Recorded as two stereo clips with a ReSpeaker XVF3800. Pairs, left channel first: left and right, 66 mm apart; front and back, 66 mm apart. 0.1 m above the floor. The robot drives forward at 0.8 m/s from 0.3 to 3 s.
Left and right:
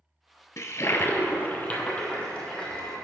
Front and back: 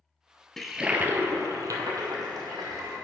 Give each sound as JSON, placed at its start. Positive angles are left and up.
{"t": 0.6, "sound": "a toilet flushing", "azimuth_deg": 80, "distance_m": 0.6}